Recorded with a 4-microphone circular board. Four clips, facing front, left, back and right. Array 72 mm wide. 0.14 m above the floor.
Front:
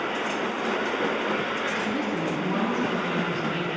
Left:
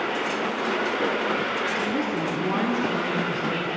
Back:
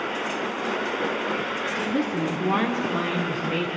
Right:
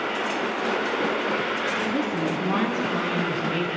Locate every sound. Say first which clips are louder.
1.8 s a woman speaking: even, back 2 dB; 140° right, 1.7 m; by 3.7 s 155° right, 2.5 m